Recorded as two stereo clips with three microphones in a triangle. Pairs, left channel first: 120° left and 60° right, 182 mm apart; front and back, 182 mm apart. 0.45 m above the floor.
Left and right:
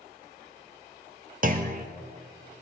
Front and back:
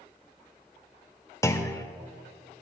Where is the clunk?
70° right, 0.8 m.